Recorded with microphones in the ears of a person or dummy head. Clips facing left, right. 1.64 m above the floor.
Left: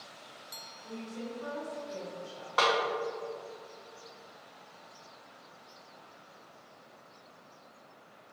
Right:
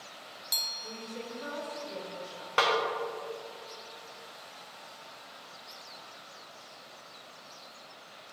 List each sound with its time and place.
0.8 s a woman speaking: 85° right, 1.5 m
2.6 s a snare drum: 35° right (ahead or behind), 1.1 m